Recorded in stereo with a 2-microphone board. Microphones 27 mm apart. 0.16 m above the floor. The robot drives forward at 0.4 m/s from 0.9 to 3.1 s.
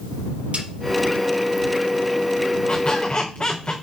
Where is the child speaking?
I don't hear a child speaking.